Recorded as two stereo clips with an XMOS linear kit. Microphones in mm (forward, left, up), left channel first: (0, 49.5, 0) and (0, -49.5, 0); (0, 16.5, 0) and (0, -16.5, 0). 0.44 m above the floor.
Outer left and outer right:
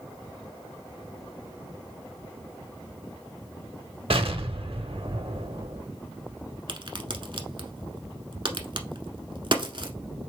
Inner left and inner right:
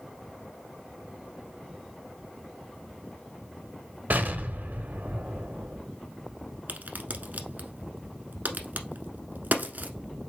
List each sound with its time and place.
4.1 s an explosion: 70° right (ahead or behind), 0.9 m
6.7 s a crack: 55° right (ahead or behind), 1.0 m